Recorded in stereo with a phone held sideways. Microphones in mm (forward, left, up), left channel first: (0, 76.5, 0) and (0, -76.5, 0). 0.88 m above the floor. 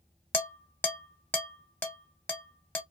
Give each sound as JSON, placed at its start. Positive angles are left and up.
{"t": 0.3, "sound": "dishes clattering", "side_deg": 15, "distance_m": 1.0}